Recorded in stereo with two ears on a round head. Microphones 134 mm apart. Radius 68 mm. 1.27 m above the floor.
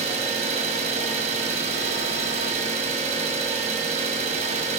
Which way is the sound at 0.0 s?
45° right (ahead or behind).